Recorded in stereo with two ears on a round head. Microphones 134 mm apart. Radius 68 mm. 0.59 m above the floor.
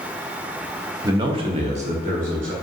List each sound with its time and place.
1.0 s a man speaking: 20° right (ahead or behind), 0.6 m; by 2.5 s 55° right (ahead or behind), 1.3 m